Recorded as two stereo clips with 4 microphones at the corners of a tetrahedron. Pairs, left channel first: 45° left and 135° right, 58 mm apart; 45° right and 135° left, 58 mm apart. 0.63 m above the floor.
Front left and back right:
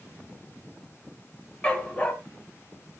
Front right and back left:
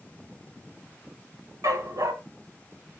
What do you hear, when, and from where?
1.6 s a dog barking: 120° left, 1.8 m